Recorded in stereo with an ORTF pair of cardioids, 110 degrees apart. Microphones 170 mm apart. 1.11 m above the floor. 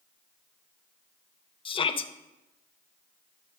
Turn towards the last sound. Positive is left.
turn(degrees=30)